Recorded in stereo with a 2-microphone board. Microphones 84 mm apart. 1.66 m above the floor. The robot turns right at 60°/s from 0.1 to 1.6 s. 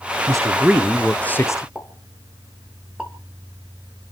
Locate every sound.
0.3 s a man speaking: 40° right, 1.0 m; by 1.6 s 40° left, 1.0 m
1.8 s a pop: 10° right (ahead or behind), 3 m